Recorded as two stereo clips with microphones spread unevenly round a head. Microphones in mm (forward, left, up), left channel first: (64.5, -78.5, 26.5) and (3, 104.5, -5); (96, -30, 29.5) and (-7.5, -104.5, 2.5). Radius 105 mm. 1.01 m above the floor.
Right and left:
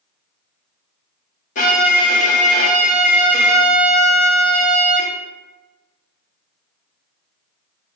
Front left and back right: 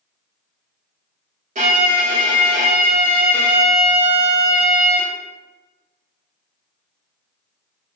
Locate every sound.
1.6 s a violin: 135° right, 1.3 m